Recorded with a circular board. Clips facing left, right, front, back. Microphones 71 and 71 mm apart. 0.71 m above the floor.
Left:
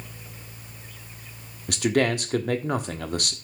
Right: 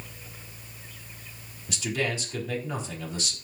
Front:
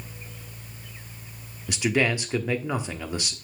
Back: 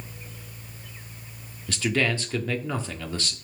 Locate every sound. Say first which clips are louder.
1.7 s a man speaking: left 7 dB, front 1 dB; 75° left, 1.3 m